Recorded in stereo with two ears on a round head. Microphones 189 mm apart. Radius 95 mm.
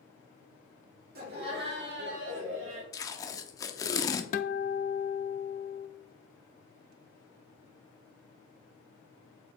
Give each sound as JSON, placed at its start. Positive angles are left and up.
{"t": 1.1, "sound": "laughter", "side_deg": -45, "distance_m": 2.5}
{"t": 2.9, "sound": "tape being pulled", "side_deg": 15, "distance_m": 0.6}
{"t": 4.3, "sound": "a guitar", "side_deg": 40, "distance_m": 0.5}